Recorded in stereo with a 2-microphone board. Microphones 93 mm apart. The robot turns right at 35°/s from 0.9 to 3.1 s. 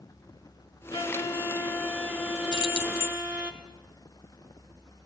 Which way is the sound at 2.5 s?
65° right (ahead or behind).